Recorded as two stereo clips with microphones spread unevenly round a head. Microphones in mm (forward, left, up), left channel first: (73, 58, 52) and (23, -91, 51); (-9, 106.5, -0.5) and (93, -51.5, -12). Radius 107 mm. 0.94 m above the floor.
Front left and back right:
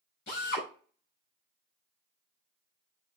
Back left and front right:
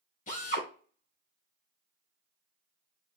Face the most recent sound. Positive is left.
turn(degrees=75)